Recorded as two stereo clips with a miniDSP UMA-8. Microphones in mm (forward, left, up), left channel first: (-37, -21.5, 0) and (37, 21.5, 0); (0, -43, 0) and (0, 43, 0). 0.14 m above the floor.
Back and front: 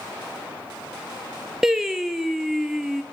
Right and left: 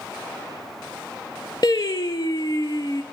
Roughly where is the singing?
Ahead right.